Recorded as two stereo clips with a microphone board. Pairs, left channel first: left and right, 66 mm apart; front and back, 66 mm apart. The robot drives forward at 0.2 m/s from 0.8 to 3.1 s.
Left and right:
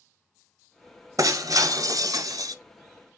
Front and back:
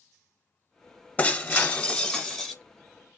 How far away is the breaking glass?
About 1.0 m.